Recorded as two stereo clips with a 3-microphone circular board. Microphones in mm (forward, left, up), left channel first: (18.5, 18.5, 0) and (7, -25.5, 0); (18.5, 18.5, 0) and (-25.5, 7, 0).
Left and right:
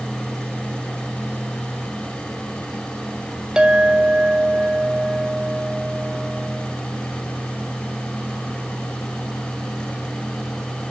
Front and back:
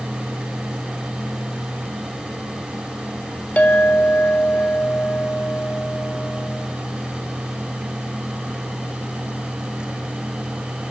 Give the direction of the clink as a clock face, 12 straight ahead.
1 o'clock.